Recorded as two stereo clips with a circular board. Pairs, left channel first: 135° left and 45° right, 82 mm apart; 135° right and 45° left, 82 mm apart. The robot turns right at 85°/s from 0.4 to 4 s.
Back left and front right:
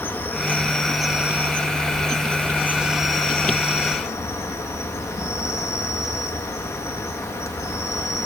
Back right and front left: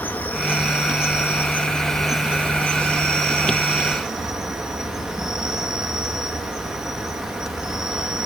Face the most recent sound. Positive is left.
turn(degrees=125)